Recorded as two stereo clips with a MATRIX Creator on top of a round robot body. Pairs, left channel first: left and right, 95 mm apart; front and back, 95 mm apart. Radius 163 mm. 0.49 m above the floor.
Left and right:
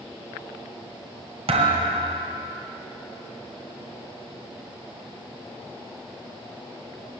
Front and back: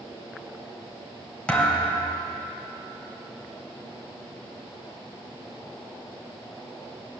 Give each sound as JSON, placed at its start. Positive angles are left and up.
{"t": 1.5, "sound": "a thud", "azimuth_deg": -80, "distance_m": 1.6}